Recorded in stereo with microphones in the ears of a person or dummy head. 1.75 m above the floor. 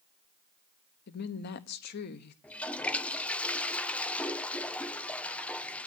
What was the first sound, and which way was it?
A woman speaking, 60° left (ahead or behind).